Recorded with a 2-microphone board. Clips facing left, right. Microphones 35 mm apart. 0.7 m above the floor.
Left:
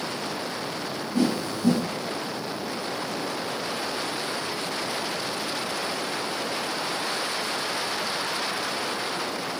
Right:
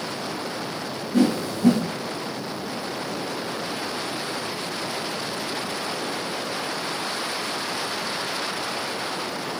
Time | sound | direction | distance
1.1 | a whoosh | 75° right (ahead or behind) | 0.6 m